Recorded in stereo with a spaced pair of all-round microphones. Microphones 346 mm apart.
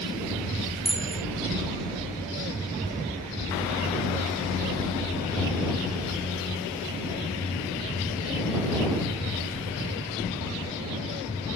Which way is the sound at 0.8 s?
50° left (ahead or behind).